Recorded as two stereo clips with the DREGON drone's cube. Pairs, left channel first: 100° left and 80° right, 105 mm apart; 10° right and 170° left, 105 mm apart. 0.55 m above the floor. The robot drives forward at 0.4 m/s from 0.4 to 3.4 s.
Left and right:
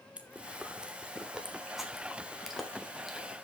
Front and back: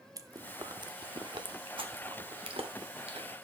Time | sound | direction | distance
0.2 | chewing | 150° right | 0.8 m